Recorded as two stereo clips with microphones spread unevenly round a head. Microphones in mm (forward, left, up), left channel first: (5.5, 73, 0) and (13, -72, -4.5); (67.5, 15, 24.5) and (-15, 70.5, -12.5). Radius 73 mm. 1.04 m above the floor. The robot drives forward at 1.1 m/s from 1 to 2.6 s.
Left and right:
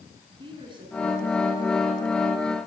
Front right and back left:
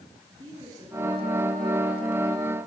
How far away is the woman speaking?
About 10 m.